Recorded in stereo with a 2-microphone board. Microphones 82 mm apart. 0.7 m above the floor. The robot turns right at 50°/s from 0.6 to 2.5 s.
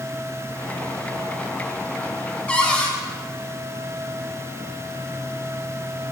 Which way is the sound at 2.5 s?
15° left (ahead or behind).